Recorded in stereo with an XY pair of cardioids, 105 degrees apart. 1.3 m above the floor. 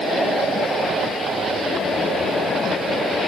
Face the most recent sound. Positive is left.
No sound to turn to.